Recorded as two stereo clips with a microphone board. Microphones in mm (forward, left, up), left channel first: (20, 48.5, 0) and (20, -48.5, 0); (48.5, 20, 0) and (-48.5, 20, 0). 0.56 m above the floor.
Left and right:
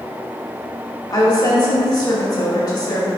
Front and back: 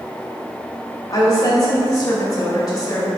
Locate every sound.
1.1 s a woman speaking: 50° left, 2.5 m